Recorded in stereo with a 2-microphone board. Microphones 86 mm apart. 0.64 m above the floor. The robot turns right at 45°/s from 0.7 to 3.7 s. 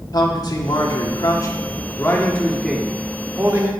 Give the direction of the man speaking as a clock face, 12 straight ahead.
9 o'clock.